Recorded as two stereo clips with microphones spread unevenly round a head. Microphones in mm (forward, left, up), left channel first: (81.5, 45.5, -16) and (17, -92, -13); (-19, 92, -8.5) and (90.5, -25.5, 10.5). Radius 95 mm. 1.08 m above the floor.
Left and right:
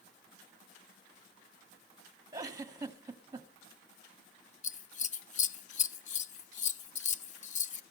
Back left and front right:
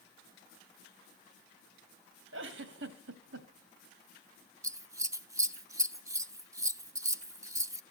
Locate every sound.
2.3 s a giggle: 45° right, 1.7 m
4.6 s scissors: 25° left, 0.8 m